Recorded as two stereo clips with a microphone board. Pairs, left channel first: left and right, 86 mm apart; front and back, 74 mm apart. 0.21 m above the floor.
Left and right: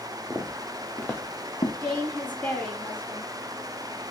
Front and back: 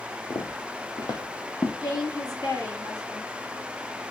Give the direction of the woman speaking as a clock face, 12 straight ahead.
11 o'clock.